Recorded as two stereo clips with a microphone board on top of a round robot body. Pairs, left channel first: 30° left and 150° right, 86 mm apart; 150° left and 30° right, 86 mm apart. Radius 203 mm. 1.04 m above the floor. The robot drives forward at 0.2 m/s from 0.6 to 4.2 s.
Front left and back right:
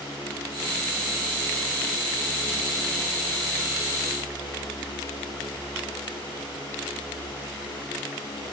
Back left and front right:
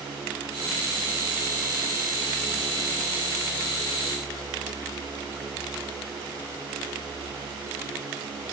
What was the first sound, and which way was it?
Only background noise.